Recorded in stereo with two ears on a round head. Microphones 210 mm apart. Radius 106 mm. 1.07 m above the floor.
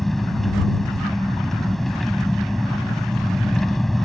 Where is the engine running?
Centre (ahead or behind).